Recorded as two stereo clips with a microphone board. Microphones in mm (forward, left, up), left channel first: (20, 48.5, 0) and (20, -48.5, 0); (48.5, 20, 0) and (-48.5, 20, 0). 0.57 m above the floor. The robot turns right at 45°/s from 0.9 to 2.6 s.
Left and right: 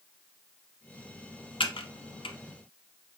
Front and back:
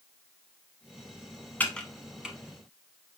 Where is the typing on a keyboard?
70° left, 0.8 m; by 2.4 s 105° left, 0.8 m.